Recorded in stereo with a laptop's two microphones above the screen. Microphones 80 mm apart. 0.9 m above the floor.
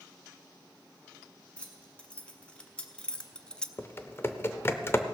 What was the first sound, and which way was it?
Keys jangling, 15° left (ahead or behind).